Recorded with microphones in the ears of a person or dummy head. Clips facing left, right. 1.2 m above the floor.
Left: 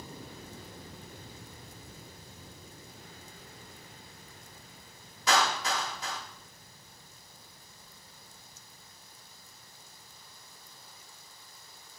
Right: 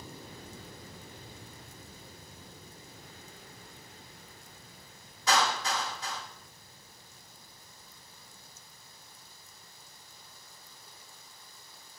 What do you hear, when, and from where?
5.3 s a clap: 65° left (ahead or behind), 1.9 m